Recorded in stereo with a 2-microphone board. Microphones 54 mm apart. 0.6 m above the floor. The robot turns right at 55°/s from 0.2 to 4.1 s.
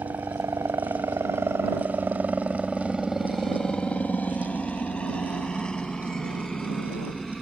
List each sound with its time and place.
0.0 s a helicopter: 60° right (ahead or behind); by 7.4 s 10° left (ahead or behind)